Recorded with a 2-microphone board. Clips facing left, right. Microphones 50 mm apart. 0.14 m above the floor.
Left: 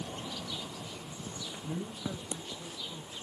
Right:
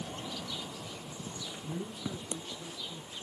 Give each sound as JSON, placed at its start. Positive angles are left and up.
{"t": 1.6, "sound": "a man speaking", "side_deg": 5, "distance_m": 2.5}